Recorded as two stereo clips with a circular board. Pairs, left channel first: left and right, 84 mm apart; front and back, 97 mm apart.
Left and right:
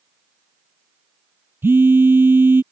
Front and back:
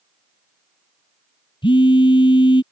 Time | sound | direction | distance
1.6 | a phone buzzing | 25° right | ?